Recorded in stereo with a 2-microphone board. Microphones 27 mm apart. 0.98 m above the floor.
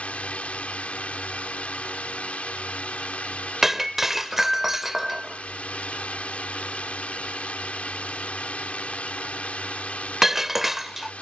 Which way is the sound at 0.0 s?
75° left (ahead or behind).